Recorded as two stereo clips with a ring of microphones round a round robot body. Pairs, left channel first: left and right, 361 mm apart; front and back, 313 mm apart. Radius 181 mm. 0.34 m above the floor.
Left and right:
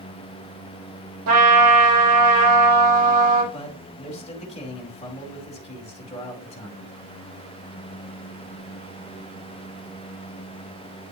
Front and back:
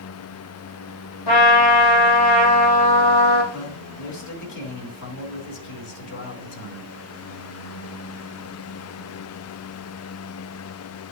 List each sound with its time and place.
1.3 s a trumpet: 40° right, 2.5 m
3.5 s a man speaking: 20° left, 2.5 m